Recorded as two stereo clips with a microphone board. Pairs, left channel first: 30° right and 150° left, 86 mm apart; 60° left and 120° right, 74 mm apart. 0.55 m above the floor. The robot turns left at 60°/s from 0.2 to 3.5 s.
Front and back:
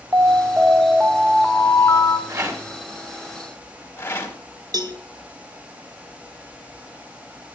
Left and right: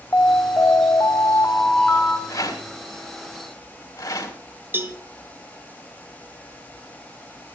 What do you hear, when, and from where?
0.1 s an alarm: 110° left, 1.4 m; by 2.2 s 10° right, 1.4 m
2.3 s a rattle: 105° left, 4 m; by 4.3 s 35° left, 4 m
4.7 s a cowbell: straight behind, 1.9 m